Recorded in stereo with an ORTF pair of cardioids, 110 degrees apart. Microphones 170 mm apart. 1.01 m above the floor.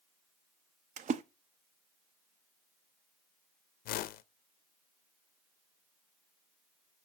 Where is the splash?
45° right, 0.7 m.